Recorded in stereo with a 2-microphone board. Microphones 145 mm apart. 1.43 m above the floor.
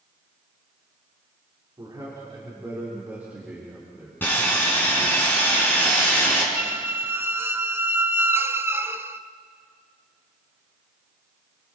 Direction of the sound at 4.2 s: 15° left (ahead or behind).